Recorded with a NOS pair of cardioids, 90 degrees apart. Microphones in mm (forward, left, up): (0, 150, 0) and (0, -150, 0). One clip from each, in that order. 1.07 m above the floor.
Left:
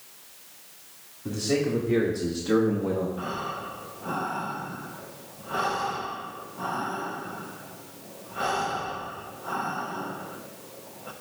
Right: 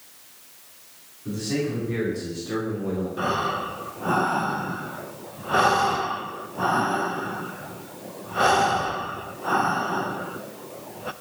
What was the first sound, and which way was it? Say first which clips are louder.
A man speaking: left 1 dB; 50° left.